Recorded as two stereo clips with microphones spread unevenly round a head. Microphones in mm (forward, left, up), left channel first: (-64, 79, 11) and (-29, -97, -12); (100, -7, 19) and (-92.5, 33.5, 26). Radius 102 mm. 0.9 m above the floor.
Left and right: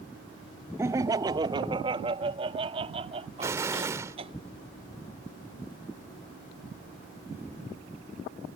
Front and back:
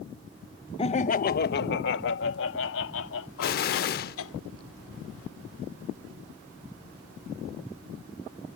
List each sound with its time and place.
0.8 s laughter: 30° right; by 4.3 s 15° right
3.4 s an explosion: straight ahead